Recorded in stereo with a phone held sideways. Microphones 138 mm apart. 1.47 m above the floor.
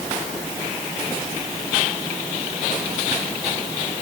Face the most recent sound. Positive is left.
No sound to turn to.